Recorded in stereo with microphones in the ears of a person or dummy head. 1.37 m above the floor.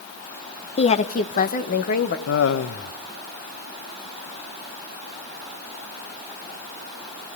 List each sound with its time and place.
0.8 s a woman speaking: 30° left (ahead or behind), 0.7 m; by 2.2 s 50° left (ahead or behind), 1.7 m
2.3 s laughter: 75° left (ahead or behind), 0.8 m